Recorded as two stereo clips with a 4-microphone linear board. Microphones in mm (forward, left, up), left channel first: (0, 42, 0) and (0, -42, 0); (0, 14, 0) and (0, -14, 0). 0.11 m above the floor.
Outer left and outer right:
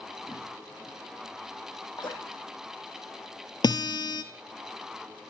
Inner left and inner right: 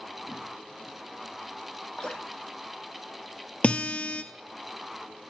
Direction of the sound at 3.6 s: 60° left (ahead or behind).